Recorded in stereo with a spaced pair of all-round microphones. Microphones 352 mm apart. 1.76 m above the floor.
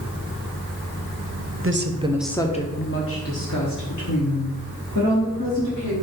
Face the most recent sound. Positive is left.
turn(degrees=65)  # may be behind; listen again after turning